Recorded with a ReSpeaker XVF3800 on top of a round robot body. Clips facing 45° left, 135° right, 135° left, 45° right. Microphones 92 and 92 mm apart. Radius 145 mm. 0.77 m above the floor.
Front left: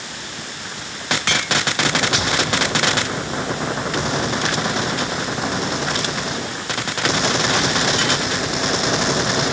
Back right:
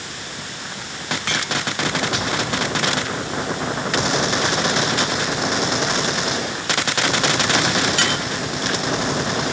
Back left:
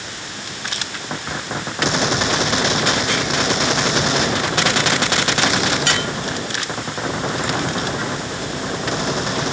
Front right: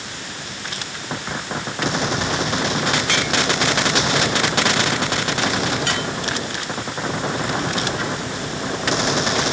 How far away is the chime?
I don't hear a chime.